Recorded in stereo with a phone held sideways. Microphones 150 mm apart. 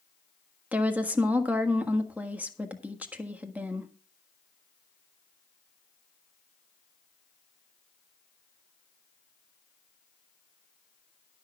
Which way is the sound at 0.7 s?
10° right (ahead or behind).